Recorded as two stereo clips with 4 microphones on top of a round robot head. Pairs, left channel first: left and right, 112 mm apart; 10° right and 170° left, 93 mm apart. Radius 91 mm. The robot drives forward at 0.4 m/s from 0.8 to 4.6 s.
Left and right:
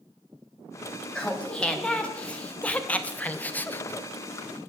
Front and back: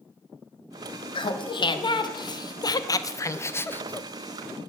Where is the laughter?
10° left, 1.5 m; by 4.1 s 50° left, 0.7 m.